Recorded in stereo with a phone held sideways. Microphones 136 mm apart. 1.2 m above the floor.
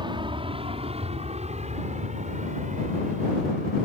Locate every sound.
0.0 s an aircraft: 35° right (ahead or behind); by 3.9 s 70° right (ahead or behind)